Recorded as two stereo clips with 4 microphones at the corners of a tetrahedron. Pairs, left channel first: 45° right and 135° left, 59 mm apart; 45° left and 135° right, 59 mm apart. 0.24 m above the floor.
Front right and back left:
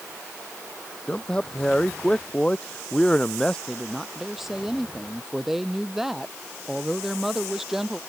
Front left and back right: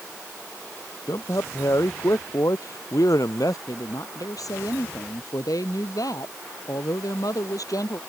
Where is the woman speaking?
50° left.